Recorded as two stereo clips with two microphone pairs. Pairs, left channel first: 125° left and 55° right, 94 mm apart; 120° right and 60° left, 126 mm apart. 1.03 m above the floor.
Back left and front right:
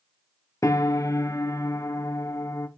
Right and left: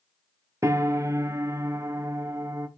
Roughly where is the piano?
Left.